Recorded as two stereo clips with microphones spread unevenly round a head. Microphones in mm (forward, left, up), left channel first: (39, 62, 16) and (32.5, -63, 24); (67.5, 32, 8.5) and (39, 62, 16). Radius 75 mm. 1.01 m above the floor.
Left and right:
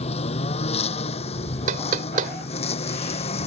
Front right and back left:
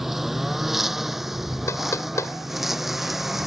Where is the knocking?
75° right.